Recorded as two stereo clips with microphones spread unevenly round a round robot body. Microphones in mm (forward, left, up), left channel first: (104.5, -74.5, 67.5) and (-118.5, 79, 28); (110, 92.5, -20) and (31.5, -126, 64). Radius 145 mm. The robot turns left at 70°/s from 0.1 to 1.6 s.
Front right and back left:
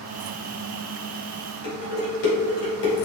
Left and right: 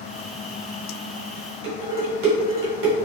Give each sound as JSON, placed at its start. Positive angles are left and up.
{"t": 1.6, "sound": "dishes clattering", "azimuth_deg": -75, "distance_m": 1.9}